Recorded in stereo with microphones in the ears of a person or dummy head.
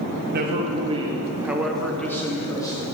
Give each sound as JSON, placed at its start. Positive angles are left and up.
{"t": 0.3, "sound": "a man speaking", "side_deg": -60, "distance_m": 0.8}